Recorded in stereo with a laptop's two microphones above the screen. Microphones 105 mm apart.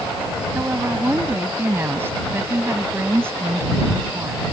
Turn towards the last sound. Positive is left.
turn(degrees=-20)  # may be behind; listen again after turning